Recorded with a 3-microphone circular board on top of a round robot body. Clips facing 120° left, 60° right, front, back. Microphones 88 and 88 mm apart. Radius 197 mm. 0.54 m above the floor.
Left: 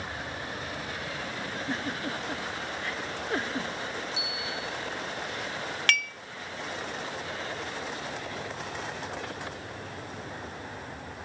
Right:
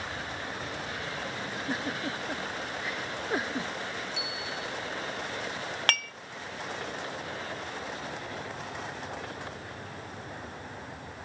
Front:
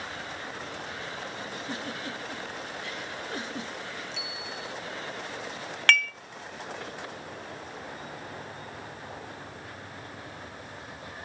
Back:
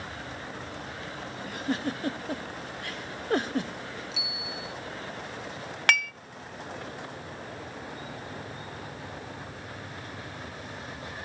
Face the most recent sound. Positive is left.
turn(degrees=-100)